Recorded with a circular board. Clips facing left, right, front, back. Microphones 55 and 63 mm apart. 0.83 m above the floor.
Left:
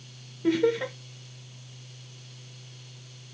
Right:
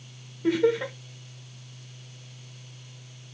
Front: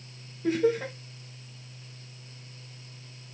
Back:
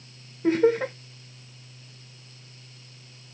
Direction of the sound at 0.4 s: Straight behind.